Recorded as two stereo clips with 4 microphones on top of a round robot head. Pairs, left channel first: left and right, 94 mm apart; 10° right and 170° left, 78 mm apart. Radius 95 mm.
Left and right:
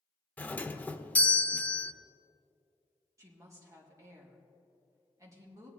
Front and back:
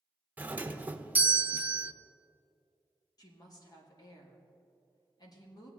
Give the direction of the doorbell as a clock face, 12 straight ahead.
7 o'clock.